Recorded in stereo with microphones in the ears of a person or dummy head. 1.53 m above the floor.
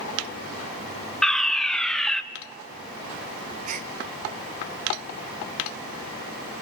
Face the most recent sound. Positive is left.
turn(degrees=-45)  # may be behind; listen again after turning